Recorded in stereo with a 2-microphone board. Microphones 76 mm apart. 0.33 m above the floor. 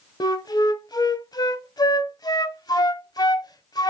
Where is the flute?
65° left (ahead or behind), 0.9 m.